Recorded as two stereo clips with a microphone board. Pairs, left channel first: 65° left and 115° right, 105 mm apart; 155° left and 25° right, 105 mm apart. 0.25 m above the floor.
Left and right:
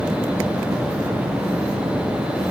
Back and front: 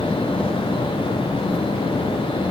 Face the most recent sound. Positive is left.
No sound to turn to.